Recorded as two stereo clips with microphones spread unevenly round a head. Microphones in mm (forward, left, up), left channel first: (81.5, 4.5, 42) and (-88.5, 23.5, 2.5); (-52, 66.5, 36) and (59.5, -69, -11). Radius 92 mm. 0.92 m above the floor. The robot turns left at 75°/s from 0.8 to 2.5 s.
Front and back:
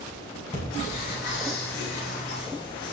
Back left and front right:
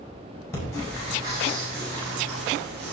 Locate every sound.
0.5 s breathing: 50° left, 5.5 m; by 2.9 s 75° right, 5.5 m